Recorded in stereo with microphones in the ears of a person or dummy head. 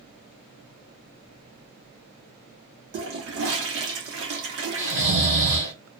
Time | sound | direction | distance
2.9 | a toilet flushing | 65° right (ahead or behind) | 0.8 m
4.8 | snoring | 35° right (ahead or behind) | 0.9 m